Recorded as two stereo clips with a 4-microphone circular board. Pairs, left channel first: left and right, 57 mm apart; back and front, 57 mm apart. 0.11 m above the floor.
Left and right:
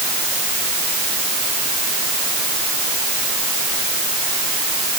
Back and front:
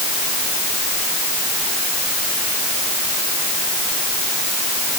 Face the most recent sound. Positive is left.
No sound to turn to.